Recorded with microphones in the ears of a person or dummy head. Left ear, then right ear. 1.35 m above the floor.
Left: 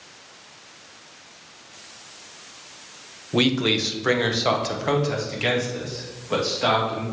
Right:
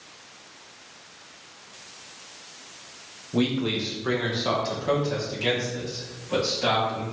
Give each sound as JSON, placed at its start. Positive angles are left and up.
{"t": 3.3, "sound": "a man speaking", "side_deg": 60, "distance_m": 0.9}